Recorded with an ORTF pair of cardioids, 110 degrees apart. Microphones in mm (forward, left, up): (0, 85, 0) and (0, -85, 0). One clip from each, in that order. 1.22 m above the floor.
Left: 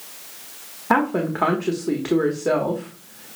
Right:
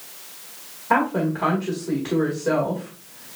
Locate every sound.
0.9 s a woman speaking: 40° left, 1.3 m